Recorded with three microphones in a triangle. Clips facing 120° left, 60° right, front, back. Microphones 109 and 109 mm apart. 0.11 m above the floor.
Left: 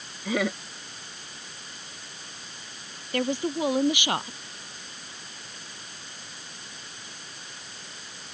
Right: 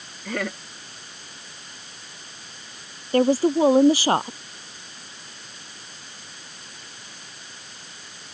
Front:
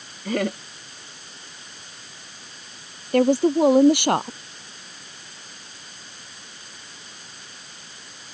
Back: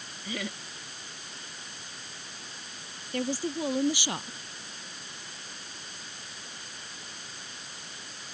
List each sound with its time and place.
0.2 s laughter: 35° left
3.1 s a woman speaking: 10° right